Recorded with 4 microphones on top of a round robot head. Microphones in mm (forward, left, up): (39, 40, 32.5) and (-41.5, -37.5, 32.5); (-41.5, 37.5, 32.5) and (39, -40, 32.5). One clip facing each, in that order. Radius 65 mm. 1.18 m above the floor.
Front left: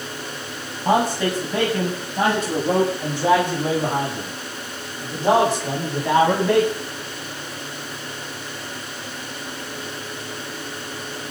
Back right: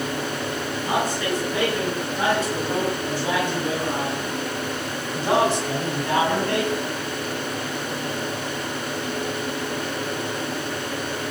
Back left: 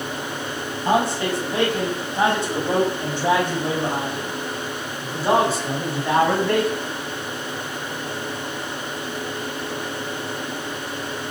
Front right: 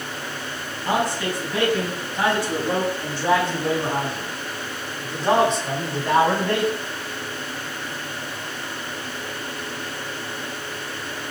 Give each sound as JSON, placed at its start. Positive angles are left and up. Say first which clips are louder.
{"t": 0.8, "sound": "a man speaking", "louder": "front left 6 dB, back left 3 dB", "azimuth_deg": 75, "distance_m": 8.5}